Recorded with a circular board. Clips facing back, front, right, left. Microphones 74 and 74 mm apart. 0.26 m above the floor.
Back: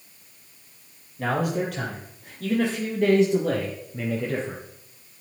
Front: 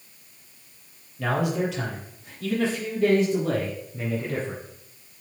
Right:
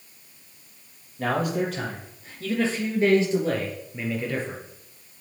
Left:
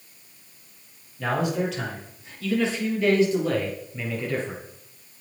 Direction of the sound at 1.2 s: 135° right.